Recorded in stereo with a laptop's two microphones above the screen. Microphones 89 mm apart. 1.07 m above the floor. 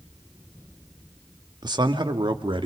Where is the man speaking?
50° right (ahead or behind), 2 m; by 2.7 s 65° right (ahead or behind), 2.5 m.